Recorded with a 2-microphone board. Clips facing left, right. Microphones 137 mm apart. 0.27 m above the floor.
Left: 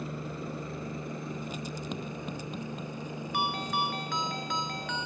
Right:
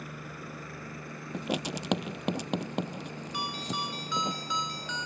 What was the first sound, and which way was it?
A helicopter, 25° left (ahead or behind).